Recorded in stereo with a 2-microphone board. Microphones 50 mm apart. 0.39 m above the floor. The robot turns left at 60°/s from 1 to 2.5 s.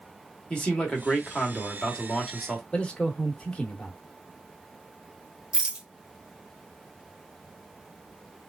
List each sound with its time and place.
0.5 s a man speaking: 20° left (ahead or behind), 1.1 m; by 2.6 s 10° left (ahead or behind), 1.1 m
2.7 s a man speaking: 20° left (ahead or behind), 0.8 m
5.5 s a rattle: 20° right (ahead or behind), 0.8 m